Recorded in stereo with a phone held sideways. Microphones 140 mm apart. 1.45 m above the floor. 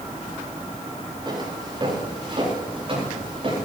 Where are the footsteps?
35° right (ahead or behind), 9.5 m; by 3.7 s 45° right (ahead or behind), 10 m.